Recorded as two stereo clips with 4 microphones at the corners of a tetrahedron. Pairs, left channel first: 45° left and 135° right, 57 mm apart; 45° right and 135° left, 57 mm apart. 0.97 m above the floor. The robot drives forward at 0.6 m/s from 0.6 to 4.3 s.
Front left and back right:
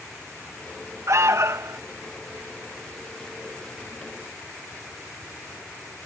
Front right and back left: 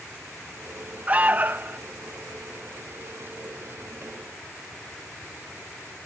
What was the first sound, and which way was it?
An alarm, 165° right.